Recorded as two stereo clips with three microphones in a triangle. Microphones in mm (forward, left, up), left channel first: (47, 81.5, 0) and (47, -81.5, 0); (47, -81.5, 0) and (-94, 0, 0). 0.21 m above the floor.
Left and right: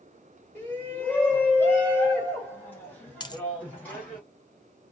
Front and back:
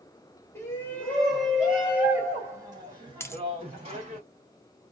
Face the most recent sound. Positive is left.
turn(degrees=35)